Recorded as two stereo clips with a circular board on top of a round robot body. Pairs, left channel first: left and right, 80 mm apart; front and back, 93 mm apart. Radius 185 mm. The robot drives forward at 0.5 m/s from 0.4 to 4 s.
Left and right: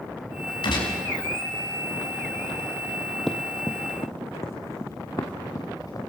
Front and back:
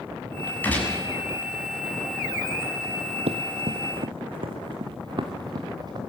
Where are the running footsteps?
175° left, 0.8 m; by 6.0 s 135° left, 3 m.